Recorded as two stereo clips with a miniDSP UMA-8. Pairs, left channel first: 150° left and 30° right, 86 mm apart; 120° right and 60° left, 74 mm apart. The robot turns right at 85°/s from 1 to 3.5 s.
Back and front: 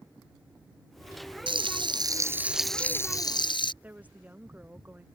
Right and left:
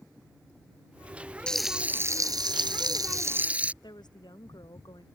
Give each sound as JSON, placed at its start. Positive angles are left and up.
{"t": 1.5, "sound": "frying", "azimuth_deg": -45}
{"t": 3.8, "sound": "a woman speaking", "azimuth_deg": -105}